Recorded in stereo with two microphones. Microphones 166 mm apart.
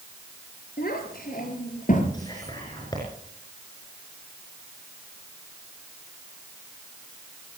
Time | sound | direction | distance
0.8 | a child speaking | 70° left (ahead or behind) | 5 m
2.1 | whispering | 25° left (ahead or behind) | 5 m